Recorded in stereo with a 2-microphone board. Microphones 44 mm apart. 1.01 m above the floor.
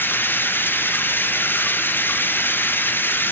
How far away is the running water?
About 0.9 m.